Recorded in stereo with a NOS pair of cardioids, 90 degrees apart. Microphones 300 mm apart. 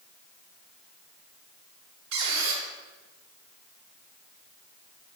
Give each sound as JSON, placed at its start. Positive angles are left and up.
{"t": 2.1, "sound": "a squeak", "azimuth_deg": -70, "distance_m": 2.0}